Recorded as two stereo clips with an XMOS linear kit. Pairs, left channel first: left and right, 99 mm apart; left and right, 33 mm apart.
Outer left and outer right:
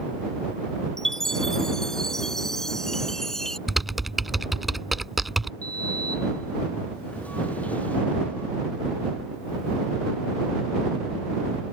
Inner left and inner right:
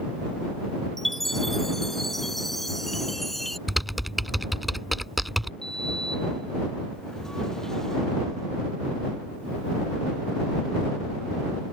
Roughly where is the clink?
I don't hear a clink.